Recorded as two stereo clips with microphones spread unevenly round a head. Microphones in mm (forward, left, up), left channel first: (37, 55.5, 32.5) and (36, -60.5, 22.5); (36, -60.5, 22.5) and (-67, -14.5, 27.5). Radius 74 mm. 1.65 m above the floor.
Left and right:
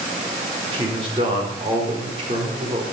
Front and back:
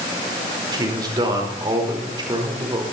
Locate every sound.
0.7 s a man speaking: 150° right, 5 m